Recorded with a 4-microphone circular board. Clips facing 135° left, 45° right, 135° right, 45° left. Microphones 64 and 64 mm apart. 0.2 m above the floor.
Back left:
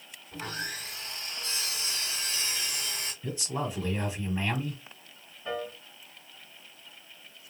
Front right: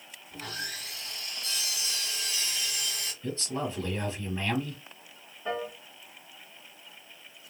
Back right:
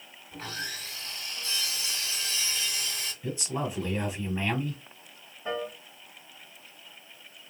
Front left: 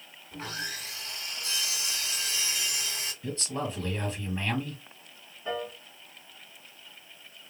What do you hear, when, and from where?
0.3 s sawing: 110° left, 1.8 m
3.2 s a man speaking: 170° left, 1.1 m
5.5 s a piano: 100° right, 1.4 m